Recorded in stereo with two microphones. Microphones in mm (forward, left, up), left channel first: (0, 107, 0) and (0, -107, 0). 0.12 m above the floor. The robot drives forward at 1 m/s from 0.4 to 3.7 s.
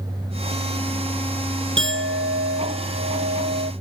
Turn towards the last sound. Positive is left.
turn(degrees=-55)  # may be behind; listen again after turning